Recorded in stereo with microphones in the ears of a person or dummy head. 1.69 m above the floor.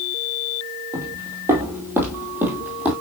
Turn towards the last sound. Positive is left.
turn(degrees=-10)  # may be behind; listen again after turning